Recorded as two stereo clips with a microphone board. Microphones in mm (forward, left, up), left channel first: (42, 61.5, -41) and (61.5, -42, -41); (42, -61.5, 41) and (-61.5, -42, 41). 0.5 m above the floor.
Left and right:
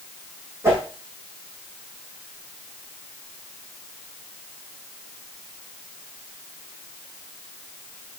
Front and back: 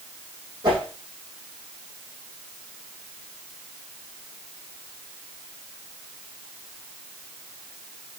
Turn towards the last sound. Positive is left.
turn(degrees=-145)